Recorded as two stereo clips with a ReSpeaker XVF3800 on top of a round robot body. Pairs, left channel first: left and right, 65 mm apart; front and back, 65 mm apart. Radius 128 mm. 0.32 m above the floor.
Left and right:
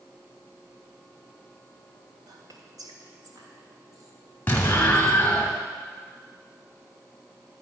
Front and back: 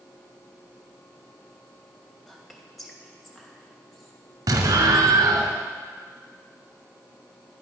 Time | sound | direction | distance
2.3 | whispering | 90° right | 2.5 m
4.5 | an explosion | 155° left | 1.5 m